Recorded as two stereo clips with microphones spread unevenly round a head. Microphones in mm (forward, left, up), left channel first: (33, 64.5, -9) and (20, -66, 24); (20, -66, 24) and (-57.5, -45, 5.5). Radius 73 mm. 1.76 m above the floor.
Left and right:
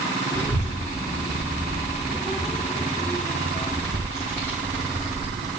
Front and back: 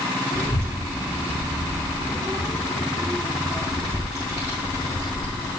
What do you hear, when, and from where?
0.3 s a child speaking: 175° left, 1.3 m; by 5.5 s 135° left, 4 m